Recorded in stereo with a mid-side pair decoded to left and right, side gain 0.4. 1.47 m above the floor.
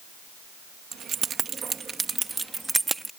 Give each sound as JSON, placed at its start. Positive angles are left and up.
{"t": 0.9, "sound": "keys jangling", "azimuth_deg": -65}